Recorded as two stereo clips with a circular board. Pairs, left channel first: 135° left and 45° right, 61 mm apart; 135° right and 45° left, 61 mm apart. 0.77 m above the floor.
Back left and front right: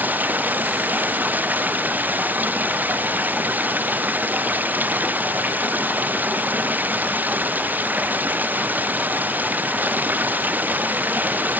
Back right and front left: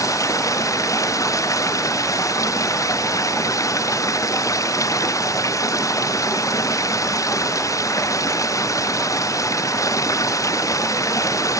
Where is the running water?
105° right.